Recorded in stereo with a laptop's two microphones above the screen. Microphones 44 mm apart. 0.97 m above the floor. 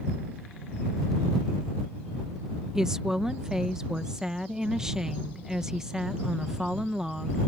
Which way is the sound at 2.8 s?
15° right (ahead or behind).